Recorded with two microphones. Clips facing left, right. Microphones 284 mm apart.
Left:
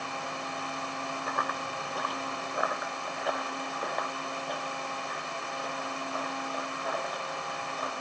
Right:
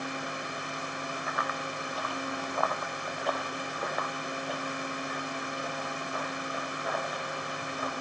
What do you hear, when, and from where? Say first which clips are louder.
1.3 s running footsteps: even; 50° left (ahead or behind), 0.8 m; by 7.9 s 10° right (ahead or behind), 5.5 m